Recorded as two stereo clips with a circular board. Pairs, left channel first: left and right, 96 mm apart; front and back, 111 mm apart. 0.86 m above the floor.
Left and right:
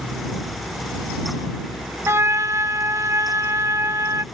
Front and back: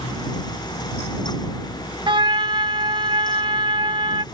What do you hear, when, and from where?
2.1 s a trumpet: 145° right